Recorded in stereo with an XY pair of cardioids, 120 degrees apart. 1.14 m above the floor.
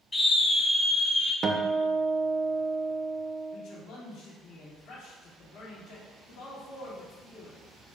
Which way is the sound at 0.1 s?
20° left.